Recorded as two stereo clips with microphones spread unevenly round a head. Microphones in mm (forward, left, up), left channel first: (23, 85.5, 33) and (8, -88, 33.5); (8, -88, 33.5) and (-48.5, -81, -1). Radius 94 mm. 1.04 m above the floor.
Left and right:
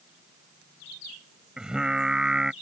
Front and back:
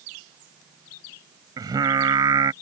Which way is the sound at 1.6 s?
Straight behind.